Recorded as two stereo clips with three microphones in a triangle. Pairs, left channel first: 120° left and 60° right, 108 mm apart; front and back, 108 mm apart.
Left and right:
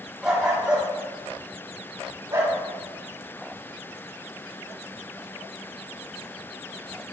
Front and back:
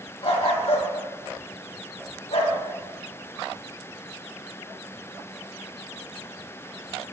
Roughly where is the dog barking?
Ahead left.